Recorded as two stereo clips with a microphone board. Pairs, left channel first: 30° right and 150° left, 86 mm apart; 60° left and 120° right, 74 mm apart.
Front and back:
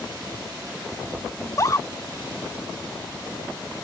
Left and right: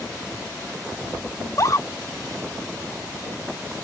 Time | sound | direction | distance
1.4 | a scream | 20° left | ?